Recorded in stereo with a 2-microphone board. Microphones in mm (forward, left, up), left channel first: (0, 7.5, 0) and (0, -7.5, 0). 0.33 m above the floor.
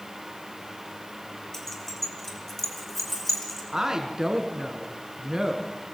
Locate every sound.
1.5 s keys jangling: 25° left (ahead or behind), 4 m; by 3.6 s 15° left (ahead or behind), 5 m
3.7 s a woman speaking: 35° right (ahead or behind), 3.5 m